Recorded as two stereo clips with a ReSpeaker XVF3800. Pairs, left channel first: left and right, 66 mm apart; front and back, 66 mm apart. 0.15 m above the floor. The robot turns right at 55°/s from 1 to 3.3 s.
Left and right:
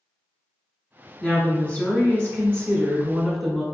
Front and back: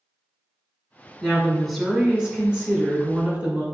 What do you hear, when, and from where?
1.2 s a woman speaking: 60° left, 1.1 m; by 3.6 s 175° left, 1.1 m